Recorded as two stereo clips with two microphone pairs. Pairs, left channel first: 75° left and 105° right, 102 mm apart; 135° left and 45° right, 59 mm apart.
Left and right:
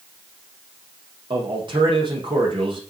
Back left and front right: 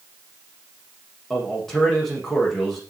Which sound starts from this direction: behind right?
A man speaking, at 1.3 s.